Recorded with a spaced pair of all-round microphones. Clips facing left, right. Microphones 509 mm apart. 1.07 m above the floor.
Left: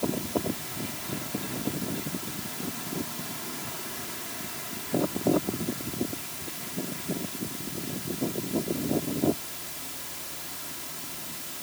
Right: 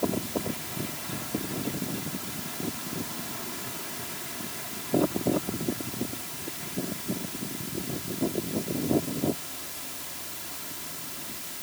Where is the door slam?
No door slam in this recording.